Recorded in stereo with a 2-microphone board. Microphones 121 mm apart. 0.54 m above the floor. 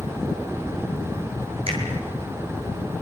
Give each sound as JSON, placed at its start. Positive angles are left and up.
{"t": 1.7, "sound": "a finger snap", "side_deg": -55, "distance_m": 10.0}